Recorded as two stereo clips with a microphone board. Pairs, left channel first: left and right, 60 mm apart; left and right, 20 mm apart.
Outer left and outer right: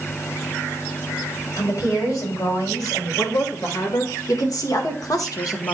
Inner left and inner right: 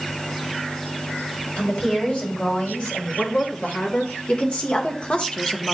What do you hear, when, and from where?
1.6 s a woman speaking: 85° left, 3.5 m; by 5.7 s 60° left (ahead or behind), 0.9 m